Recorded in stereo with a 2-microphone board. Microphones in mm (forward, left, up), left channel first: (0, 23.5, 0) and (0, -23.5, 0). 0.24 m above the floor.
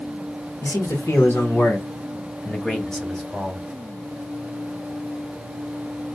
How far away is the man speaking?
About 2 m.